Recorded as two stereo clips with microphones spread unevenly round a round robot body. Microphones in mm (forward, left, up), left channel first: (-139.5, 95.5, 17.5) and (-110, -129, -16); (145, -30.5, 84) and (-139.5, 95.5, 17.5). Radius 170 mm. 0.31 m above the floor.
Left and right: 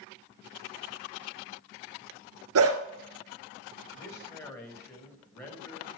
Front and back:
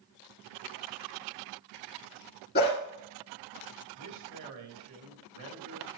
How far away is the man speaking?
About 4 m.